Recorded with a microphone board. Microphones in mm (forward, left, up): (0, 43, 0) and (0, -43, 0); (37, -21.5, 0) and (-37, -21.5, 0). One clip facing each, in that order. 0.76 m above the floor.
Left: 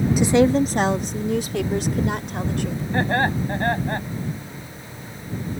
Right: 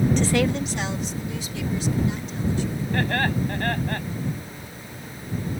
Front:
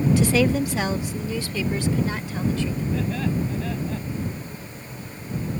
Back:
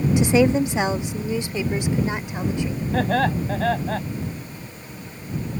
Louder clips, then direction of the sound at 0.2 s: Left 6 dB, back 3 dB; 155° left.